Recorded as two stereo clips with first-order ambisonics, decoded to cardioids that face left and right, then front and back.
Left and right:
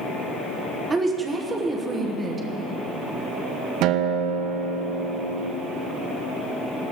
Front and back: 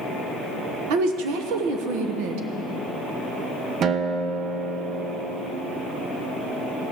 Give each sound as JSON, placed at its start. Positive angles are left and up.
{"t": 0.9, "sound": "a woman speaking", "azimuth_deg": -165, "distance_m": 1.3}
{"t": 3.8, "sound": "a guitar", "azimuth_deg": -125, "distance_m": 0.7}